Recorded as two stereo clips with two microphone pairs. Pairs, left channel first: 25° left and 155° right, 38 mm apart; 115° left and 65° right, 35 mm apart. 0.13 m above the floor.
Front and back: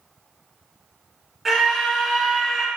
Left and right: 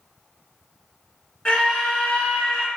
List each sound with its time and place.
1.4 s a scream: 120° left, 1.4 m